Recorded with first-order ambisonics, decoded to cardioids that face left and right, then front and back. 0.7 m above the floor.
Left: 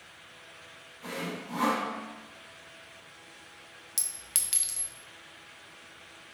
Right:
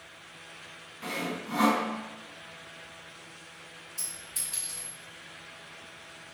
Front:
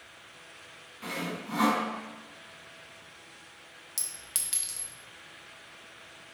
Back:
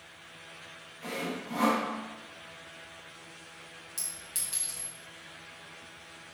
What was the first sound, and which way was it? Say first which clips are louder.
Sawing: right 3 dB, even; 55° right.